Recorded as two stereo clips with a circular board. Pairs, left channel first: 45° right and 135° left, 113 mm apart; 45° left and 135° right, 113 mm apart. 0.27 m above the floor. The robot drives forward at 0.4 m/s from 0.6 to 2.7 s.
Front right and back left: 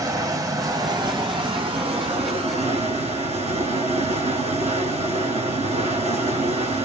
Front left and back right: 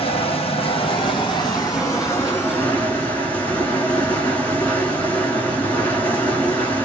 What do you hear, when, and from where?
0.0 s running water: 80° left, 1.2 m; by 6.9 s 120° left, 1.3 m